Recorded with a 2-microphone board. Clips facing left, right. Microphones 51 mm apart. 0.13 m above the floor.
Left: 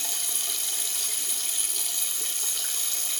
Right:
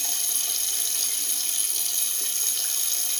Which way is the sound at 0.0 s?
5° left (ahead or behind).